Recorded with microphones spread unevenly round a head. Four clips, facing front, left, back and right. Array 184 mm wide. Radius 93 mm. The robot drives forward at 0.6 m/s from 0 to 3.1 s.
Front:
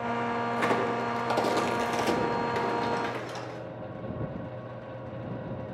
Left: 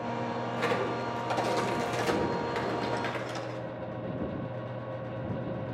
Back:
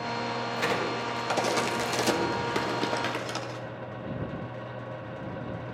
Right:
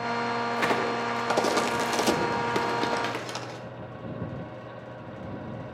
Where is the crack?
60° right, 1.4 m; by 3.6 s 125° right, 1.5 m.